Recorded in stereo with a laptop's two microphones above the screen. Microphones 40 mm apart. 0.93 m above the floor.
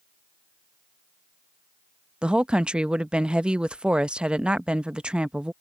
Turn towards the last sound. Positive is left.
turn(degrees=-25)  # may be behind; listen again after turning